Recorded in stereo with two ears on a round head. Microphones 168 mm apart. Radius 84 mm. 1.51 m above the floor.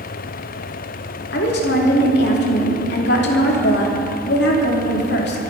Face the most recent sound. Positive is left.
turn(degrees=60)  # may be behind; listen again after turning